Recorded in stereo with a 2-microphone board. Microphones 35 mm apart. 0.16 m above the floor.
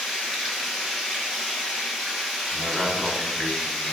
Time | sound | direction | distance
0.0 | running water | 10° right (ahead or behind) | 1.3 m
2.5 | a man speaking | 10° left (ahead or behind) | 1.0 m